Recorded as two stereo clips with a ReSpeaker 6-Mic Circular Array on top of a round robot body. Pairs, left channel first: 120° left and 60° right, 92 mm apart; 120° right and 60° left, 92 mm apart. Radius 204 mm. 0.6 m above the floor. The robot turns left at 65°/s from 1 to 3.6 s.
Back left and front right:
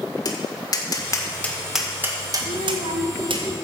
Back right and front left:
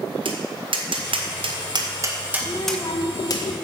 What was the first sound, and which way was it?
Tapping, 75° left.